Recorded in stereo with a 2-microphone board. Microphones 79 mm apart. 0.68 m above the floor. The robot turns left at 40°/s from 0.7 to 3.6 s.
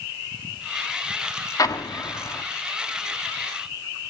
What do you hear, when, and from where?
1.6 s an explosion: 85° left, 1.7 m; by 2.4 s 50° left, 1.7 m